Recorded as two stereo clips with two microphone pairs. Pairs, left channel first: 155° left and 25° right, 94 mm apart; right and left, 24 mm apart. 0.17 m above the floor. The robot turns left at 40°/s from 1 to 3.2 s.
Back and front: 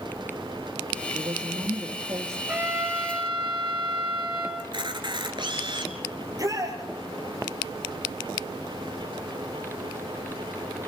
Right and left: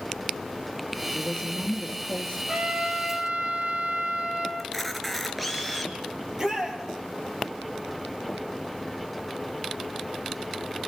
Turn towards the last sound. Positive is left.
turn(degrees=30)